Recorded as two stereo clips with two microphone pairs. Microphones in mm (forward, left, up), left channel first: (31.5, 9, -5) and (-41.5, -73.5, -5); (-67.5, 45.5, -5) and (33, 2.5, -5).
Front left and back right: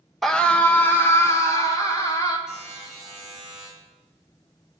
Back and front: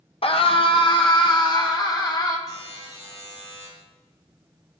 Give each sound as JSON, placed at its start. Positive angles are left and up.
{"t": 0.2, "sound": "a scream", "azimuth_deg": 135, "distance_m": 1.3}
{"t": 2.5, "sound": "a buzzer", "azimuth_deg": 145, "distance_m": 6.0}